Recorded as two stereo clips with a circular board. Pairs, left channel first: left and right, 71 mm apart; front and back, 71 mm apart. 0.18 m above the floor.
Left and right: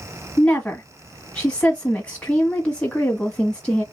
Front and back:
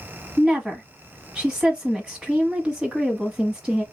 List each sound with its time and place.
0.4 s a woman speaking: 120° left, 1.0 m